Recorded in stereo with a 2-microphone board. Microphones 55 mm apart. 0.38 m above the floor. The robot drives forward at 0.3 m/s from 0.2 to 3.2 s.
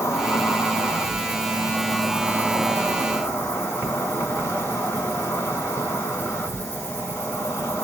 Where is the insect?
65° left (ahead or behind), 1.5 m; by 7.8 s 45° left (ahead or behind), 2 m.